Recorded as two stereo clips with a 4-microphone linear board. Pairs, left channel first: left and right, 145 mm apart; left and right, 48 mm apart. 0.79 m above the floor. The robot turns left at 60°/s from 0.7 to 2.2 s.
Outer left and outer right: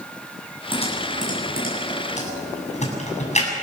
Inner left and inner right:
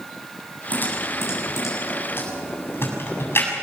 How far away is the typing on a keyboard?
About 7 m.